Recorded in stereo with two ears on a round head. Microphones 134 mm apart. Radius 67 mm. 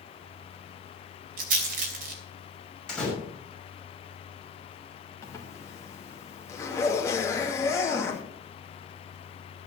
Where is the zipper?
20° left (ahead or behind), 2 m.